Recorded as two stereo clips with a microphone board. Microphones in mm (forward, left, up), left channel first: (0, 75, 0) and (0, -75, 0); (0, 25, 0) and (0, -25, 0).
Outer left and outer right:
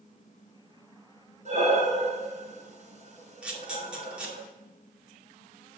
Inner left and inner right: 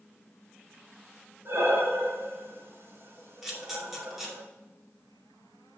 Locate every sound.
1.4 s breathing: 50° right (ahead or behind), 2.5 m
3.4 s a camera shutter: 5° right (ahead or behind), 2.5 m